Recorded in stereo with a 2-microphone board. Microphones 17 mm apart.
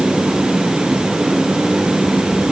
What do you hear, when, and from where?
Only background noise.